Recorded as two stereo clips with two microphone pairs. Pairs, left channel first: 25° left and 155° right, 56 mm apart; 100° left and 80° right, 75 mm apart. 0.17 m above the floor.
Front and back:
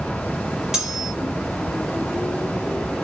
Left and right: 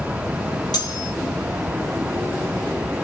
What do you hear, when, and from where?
0.7 s cutlery clinking: 125° left, 2 m